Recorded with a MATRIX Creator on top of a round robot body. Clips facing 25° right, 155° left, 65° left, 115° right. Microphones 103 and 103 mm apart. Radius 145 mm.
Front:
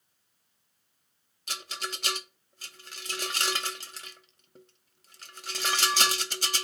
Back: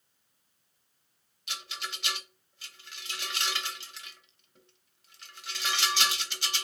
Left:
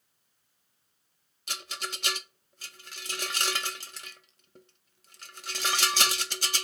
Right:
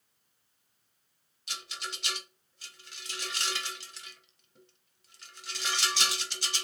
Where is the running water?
I don't hear running water.